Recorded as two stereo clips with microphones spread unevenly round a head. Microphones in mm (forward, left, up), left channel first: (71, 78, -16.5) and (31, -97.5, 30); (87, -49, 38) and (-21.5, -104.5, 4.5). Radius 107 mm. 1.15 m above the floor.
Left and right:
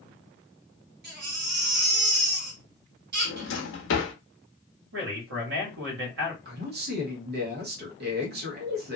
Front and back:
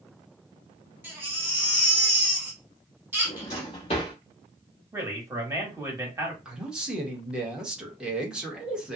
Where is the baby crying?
75° right, 1.7 m.